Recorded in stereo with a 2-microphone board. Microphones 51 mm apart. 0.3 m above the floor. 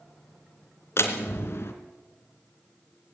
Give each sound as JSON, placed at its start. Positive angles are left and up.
{"t": 1.0, "sound": "a door slam", "side_deg": 55, "distance_m": 3.0}